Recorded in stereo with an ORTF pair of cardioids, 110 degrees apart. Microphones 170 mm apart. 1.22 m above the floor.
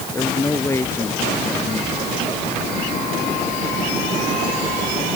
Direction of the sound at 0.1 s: 15° left.